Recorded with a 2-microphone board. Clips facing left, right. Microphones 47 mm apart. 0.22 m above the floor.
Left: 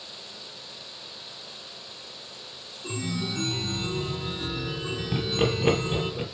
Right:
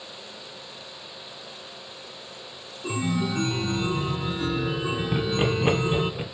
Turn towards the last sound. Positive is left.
turn(degrees=-5)  # may be behind; listen again after turning